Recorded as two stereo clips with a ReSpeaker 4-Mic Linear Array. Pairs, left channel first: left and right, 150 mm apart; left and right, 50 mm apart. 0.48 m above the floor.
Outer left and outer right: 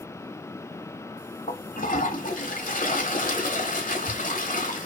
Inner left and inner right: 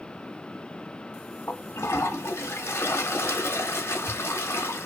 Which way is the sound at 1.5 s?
60° left (ahead or behind).